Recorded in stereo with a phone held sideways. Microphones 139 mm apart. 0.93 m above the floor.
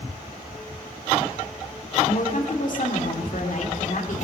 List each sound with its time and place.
2.1 s a woman speaking: 65° left (ahead or behind), 2 m